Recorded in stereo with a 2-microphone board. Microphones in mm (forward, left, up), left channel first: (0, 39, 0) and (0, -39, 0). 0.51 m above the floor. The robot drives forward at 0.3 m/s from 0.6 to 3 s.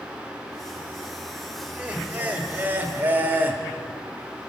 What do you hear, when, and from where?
1.6 s laughter: 20° right (ahead or behind), 1.7 m; by 3.6 s 25° right (ahead or behind), 1.4 m